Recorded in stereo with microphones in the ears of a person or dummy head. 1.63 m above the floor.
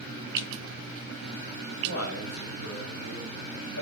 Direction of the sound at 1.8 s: 65° left (ahead or behind).